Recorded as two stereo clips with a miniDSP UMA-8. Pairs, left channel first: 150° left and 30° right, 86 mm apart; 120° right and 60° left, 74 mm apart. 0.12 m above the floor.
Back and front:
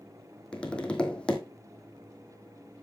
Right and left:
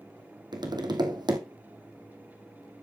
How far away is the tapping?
About 2 m.